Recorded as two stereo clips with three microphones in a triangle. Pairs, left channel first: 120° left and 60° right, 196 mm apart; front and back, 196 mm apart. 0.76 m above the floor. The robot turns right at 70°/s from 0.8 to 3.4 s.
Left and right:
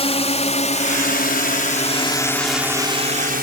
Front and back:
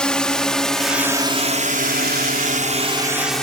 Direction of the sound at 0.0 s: 85° left.